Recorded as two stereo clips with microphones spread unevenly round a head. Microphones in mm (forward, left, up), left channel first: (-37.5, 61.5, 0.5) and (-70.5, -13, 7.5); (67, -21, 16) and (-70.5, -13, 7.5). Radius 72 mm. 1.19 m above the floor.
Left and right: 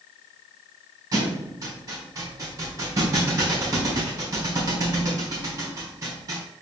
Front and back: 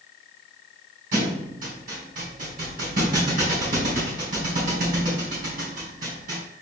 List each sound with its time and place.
1.1 s a thud: 155° right, 4 m